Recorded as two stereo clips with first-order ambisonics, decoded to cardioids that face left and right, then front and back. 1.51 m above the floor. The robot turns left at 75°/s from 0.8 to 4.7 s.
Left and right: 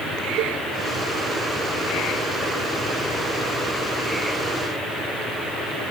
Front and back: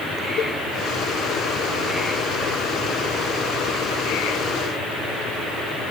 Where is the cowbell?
50° right, 2 m.